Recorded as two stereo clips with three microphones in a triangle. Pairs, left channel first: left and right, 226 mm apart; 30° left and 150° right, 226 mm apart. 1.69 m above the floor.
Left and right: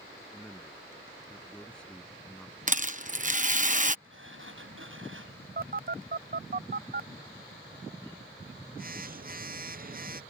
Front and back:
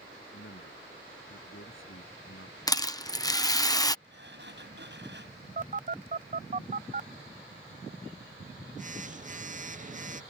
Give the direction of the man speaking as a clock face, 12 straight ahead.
12 o'clock.